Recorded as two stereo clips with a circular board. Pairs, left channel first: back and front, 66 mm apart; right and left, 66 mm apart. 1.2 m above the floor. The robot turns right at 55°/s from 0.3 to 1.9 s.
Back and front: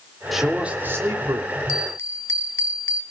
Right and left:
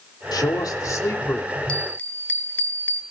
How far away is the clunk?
I don't hear a clunk.